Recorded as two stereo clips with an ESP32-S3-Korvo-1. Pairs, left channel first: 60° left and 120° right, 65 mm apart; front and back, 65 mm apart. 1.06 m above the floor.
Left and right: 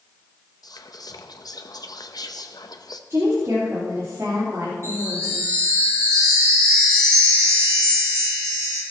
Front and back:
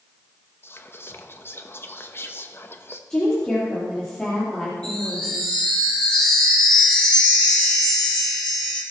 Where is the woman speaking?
75° right, 3 m.